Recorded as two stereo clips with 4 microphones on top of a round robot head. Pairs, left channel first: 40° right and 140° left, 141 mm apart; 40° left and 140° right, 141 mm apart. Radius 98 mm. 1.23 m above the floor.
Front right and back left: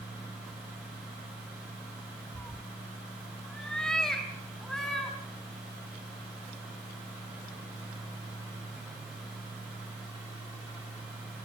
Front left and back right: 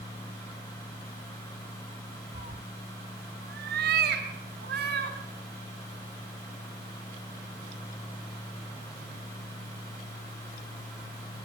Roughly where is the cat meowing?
Right.